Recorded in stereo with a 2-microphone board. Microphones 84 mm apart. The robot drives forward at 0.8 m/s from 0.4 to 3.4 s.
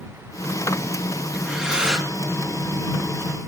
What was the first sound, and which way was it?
Breathing, 10° right (ahead or behind).